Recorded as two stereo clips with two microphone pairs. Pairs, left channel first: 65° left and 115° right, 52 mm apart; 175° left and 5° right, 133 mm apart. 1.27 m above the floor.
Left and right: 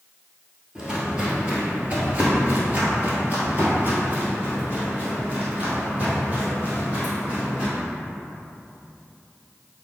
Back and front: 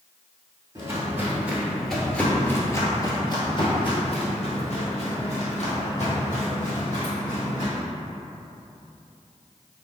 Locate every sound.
0.8 s footsteps: 50° right, 1.6 m; by 7.7 s 175° left, 3.5 m